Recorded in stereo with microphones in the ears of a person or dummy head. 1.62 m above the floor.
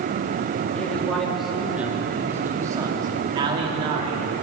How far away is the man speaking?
About 2.5 m.